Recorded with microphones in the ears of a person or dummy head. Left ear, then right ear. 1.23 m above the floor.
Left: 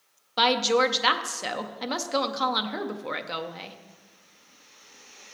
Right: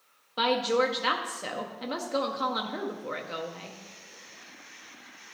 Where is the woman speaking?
20° left (ahead or behind), 0.6 m.